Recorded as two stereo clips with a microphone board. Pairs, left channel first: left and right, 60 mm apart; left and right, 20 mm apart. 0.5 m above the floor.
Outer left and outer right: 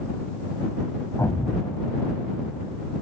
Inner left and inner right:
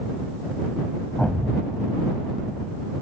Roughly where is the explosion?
Left.